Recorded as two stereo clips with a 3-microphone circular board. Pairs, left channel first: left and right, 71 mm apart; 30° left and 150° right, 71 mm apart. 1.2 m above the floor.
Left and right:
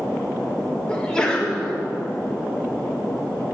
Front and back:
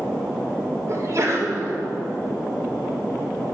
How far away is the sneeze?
About 1.7 m.